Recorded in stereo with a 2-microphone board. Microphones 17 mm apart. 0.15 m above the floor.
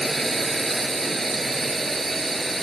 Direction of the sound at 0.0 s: 5° left (ahead or behind).